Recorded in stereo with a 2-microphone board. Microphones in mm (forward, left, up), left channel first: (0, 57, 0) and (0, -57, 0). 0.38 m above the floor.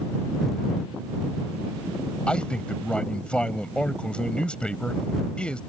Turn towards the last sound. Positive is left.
turn(degrees=10)  # may be behind; listen again after turning